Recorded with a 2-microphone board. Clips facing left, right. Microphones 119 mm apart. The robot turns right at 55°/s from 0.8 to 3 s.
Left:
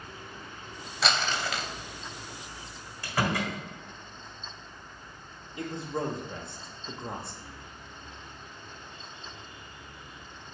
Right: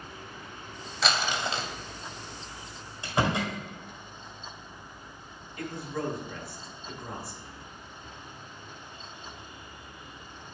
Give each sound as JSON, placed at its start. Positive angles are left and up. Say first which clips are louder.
{"t": 1.0, "sound": "crumpling", "louder": "even", "azimuth_deg": 180, "distance_m": 0.7}
{"t": 3.0, "sound": "a door slam", "louder": "right 2 dB", "side_deg": -25, "distance_m": 1.8}
{"t": 5.6, "sound": "a man speaking", "louder": "left 1 dB", "side_deg": 25, "distance_m": 0.9}